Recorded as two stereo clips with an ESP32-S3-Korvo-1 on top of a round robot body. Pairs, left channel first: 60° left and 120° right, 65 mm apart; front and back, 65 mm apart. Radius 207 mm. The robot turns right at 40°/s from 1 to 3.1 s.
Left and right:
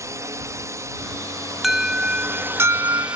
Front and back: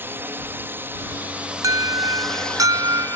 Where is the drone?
135° right; by 3.2 s 50° right.